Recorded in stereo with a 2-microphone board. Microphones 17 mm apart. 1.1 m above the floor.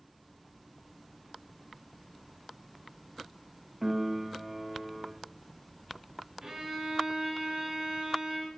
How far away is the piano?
About 0.8 m.